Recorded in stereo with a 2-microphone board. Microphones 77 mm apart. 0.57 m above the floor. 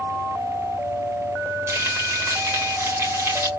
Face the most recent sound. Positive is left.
turn(degrees=-35)  # may be behind; listen again after turning